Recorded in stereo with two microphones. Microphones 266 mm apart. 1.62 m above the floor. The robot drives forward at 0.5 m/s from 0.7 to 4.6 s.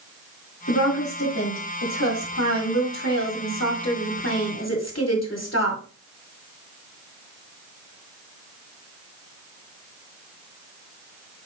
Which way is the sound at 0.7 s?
80° left.